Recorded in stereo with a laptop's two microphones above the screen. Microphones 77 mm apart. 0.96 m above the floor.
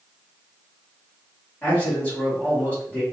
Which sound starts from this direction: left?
A man speaking, at 1.6 s.